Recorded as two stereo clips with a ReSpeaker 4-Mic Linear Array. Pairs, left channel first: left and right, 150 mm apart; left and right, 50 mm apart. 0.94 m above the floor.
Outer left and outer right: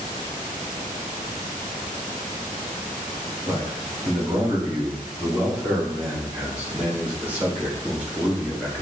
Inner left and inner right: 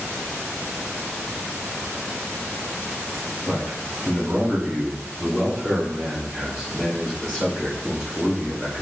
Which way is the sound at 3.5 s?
40° right (ahead or behind).